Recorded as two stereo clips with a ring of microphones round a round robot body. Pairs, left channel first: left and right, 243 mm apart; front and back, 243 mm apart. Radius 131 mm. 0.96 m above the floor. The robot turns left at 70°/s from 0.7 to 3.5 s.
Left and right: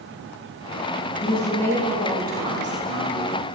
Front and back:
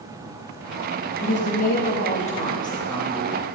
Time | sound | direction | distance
1.2 | a woman speaking | 45° left | 1.8 m